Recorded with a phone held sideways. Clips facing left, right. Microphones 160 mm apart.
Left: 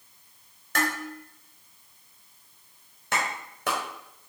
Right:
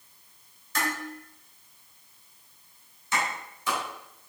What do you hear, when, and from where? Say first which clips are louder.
0.8 s dishes clattering: left 3 dB; 75° left (ahead or behind), 3.5 m
3.1 s a clap: even; 75° left (ahead or behind), 4 m